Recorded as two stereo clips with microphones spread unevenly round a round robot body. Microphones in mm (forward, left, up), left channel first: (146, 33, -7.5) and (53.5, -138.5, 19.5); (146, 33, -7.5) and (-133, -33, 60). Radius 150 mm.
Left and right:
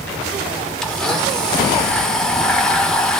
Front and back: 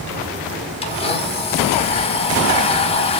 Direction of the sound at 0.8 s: 10° right.